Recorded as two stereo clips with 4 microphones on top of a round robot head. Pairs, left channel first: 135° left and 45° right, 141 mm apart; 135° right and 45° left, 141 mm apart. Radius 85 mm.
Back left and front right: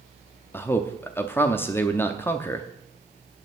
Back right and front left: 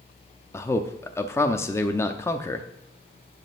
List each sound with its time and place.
0.5 s a man speaking: 175° right, 0.7 m